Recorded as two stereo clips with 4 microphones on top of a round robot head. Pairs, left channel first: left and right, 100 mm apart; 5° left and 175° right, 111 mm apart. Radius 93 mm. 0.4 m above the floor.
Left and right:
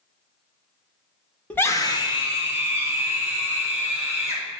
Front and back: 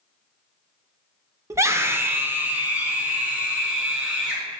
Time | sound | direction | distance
1.5 | a scream | 155° left | 0.9 m